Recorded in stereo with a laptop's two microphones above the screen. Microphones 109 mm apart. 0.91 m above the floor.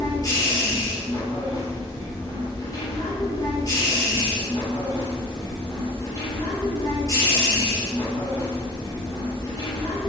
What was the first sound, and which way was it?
A machine running, 35° left (ahead or behind).